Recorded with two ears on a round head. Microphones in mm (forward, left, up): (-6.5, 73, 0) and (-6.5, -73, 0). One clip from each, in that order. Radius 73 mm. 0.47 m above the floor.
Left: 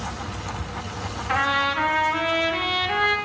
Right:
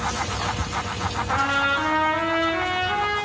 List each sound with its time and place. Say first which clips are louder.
1.3 s a trumpet: even; 65° left (ahead or behind), 3 m